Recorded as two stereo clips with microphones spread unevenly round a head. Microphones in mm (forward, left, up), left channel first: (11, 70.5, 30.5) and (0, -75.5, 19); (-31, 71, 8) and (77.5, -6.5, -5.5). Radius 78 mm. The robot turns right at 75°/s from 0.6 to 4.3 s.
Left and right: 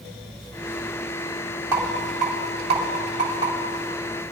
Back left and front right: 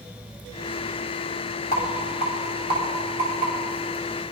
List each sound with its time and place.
1.7 s a rattle: 165° right, 2.5 m; by 3.5 s 30° right, 2.5 m